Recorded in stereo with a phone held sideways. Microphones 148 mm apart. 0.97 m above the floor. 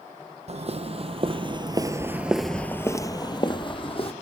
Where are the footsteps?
50° right (ahead or behind), 1.9 m; by 4.1 s 40° left (ahead or behind), 1.9 m.